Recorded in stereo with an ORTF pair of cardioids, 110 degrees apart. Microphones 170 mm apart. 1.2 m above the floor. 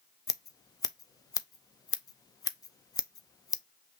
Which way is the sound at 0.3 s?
20° left.